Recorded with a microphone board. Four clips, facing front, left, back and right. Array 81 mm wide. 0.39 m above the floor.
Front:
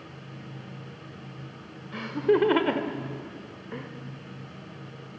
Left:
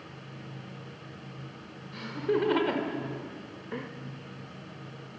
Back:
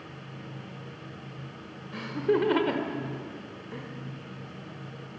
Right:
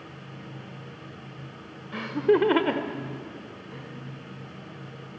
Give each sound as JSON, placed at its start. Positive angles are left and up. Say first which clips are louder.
{"t": 1.9, "sound": "laughter", "louder": "right 7 dB, front 3 dB", "azimuth_deg": -75, "distance_m": 1.6}